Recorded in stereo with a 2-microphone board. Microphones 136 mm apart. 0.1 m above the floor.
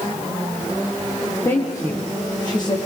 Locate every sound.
1.4 s a woman speaking: 20° left (ahead or behind), 5 m; by 2.8 s 35° left (ahead or behind), 6 m